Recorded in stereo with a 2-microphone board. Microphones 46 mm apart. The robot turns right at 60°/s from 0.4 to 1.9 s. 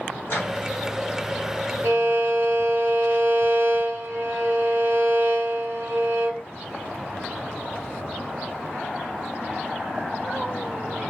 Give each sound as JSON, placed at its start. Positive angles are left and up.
{"t": 0.3, "sound": "a microwave", "side_deg": 45, "distance_m": 1.4}
{"t": 1.8, "sound": "a violin", "side_deg": -50, "distance_m": 1.1}